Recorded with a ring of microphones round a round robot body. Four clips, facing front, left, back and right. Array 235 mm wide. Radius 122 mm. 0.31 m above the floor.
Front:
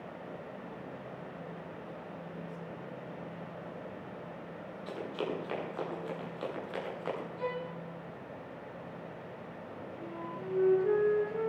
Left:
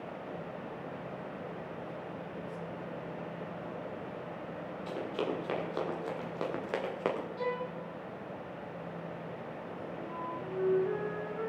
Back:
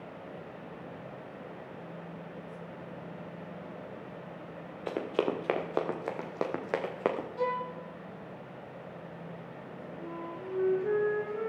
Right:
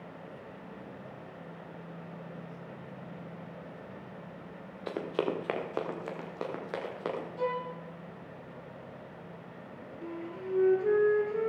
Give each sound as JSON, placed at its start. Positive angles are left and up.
{"t": 4.9, "sound": "running footsteps", "azimuth_deg": -150, "distance_m": 3.5}
{"t": 7.4, "sound": "a violin", "azimuth_deg": -170, "distance_m": 5.0}
{"t": 10.0, "sound": "a flute", "azimuth_deg": -90, "distance_m": 4.0}